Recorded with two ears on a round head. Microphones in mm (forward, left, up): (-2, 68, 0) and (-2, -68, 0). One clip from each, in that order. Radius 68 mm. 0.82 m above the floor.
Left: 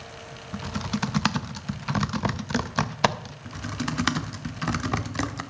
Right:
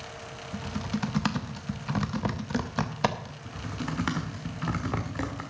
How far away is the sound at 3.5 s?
About 1.0 m.